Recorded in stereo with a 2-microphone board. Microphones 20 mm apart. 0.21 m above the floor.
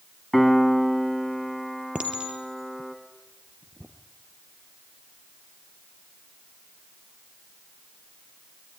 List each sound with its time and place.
0.3 s a piano: centre (ahead or behind), 2.0 m
1.9 s a clink: 70° right (ahead or behind), 2.5 m